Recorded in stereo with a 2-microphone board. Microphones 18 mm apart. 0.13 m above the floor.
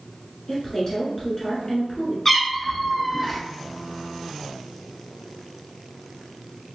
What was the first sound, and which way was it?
A woman speaking, 35° left (ahead or behind).